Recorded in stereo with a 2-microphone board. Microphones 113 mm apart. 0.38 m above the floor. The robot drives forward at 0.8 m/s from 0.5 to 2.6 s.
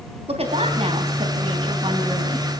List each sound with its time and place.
0.3 s a woman speaking: 65° right (ahead or behind), 2.5 m; by 2.5 s 45° right (ahead or behind), 3.5 m